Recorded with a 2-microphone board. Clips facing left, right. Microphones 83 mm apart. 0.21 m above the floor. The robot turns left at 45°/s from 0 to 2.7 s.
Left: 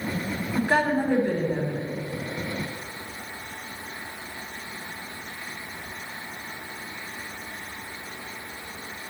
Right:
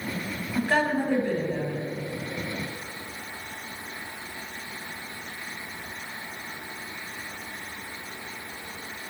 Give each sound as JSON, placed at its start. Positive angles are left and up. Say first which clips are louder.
{"t": 0.6, "sound": "a woman speaking", "louder": "left 1 dB", "side_deg": 5, "distance_m": 1.5}